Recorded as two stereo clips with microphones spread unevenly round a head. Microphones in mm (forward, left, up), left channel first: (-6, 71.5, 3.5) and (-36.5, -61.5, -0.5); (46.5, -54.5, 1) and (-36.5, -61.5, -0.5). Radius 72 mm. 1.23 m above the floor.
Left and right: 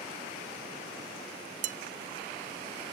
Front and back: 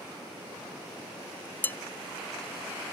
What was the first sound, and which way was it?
Dishes clattering, 60° right.